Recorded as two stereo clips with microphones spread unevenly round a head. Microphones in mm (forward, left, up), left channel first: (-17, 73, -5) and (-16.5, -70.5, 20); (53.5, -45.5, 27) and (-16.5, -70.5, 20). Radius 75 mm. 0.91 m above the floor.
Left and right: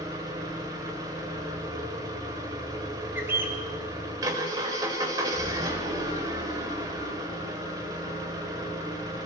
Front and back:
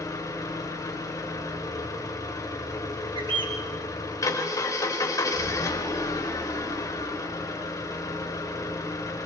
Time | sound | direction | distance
0.0 | an engine running | 20° right | 3 m
3.1 | a bird | 165° right | 3.5 m